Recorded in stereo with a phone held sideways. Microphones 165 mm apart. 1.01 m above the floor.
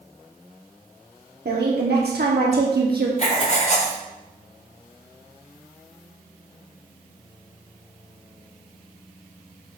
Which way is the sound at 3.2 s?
45° left (ahead or behind).